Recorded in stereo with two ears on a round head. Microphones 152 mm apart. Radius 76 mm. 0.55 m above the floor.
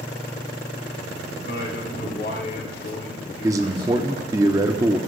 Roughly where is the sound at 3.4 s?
Right.